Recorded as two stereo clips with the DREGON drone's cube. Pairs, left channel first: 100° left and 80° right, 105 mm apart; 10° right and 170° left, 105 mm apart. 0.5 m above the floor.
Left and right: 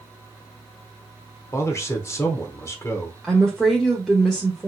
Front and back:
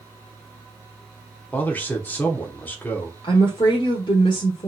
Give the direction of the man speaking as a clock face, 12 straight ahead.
10 o'clock.